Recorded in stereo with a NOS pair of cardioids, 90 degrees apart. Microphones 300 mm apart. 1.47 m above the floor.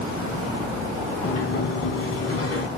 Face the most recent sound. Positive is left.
turn(degrees=50)